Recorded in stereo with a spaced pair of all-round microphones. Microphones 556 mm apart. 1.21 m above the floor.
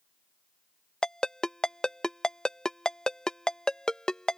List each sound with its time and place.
1.0 s a ringtone: centre (ahead or behind)